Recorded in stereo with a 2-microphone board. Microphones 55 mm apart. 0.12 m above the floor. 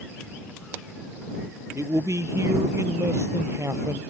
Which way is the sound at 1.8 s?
60° right (ahead or behind).